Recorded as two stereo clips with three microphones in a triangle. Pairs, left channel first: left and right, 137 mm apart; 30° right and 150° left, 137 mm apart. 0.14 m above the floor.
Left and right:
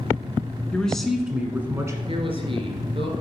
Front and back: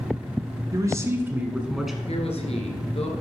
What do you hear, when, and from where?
0.7 s a man speaking: 160° left, 1.1 m; by 2.0 s 120° right, 1.1 m
2.1 s a man speaking: 55° right, 2.0 m